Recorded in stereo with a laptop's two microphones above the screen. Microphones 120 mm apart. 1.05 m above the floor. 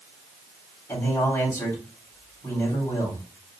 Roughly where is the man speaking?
Left.